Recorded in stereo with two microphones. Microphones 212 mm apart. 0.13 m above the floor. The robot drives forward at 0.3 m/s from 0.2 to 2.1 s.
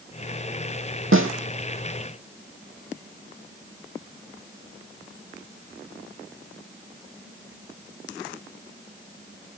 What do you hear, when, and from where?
1.1 s a snare drum: 80° right, 2.0 m